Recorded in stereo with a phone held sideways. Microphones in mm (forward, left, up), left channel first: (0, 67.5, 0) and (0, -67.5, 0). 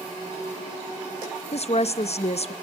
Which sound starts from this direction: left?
A woman speaking, at 1.5 s.